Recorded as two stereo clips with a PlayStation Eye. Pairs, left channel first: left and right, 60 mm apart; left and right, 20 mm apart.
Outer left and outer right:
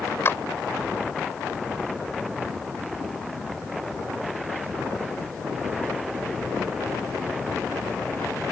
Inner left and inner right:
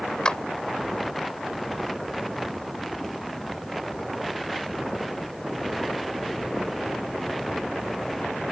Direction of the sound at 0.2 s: 45° left (ahead or behind).